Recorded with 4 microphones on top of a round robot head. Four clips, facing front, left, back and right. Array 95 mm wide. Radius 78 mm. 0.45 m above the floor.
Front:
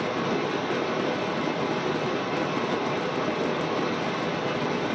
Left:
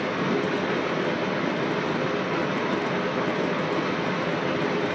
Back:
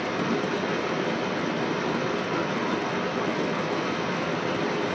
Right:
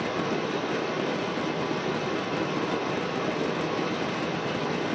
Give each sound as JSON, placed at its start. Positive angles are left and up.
{"t": 0.0, "sound": "running water", "azimuth_deg": 120, "distance_m": 1.9}